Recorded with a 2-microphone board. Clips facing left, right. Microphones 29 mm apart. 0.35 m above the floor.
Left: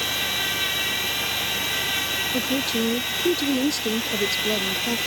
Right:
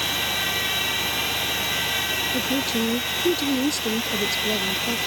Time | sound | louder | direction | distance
2.3 | a woman speaking | even | 10° left (ahead or behind) | ?